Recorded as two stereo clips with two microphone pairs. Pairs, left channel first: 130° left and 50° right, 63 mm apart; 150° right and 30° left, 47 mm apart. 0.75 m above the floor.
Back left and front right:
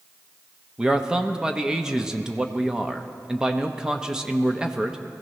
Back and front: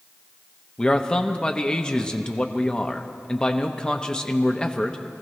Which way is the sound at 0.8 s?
110° right.